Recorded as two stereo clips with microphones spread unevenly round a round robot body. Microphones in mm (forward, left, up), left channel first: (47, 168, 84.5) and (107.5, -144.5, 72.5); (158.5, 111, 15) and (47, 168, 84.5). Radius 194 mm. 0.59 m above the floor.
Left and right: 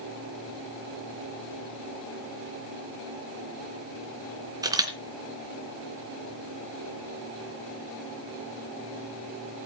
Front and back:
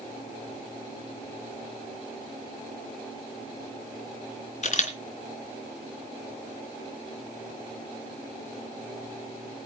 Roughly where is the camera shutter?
Ahead.